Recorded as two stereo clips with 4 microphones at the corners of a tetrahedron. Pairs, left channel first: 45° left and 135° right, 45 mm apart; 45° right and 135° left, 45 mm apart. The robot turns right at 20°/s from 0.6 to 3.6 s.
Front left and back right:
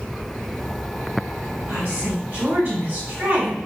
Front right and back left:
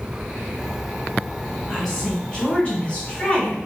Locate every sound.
1.7 s a woman speaking: 125° right, 1.7 m; by 3.6 s 85° right, 1.7 m